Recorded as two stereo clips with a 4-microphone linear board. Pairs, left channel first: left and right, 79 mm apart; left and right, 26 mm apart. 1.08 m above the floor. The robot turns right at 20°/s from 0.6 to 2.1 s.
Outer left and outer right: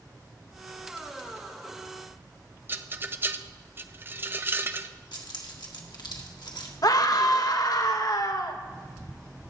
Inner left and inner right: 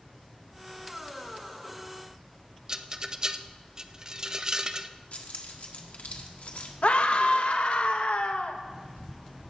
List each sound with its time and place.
2.7 s a rattle: 30° right (ahead or behind), 0.5 m
5.1 s keys jangling: 80° left, 1.6 m
6.8 s a scream: 55° left (ahead or behind), 1.2 m